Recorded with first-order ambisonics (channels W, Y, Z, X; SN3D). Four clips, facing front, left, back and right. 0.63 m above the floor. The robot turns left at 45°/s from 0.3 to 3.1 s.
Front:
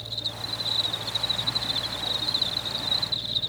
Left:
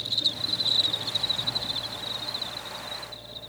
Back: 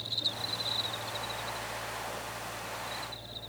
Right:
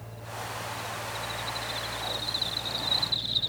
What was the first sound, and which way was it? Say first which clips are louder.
An insect: left 12 dB, front 1 dB; 85° left.